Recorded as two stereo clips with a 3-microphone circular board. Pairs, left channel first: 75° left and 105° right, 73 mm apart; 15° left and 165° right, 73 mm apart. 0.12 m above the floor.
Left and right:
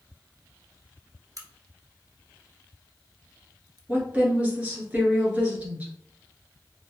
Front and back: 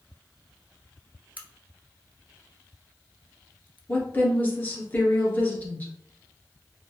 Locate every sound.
1.4 s a crack: 105° right, 0.8 m
3.9 s a woman speaking: 40° right, 1.5 m